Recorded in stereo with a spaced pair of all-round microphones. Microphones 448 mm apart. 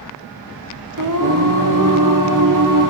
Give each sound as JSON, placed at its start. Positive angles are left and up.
{"t": 1.0, "sound": "singing", "side_deg": -45, "distance_m": 0.9}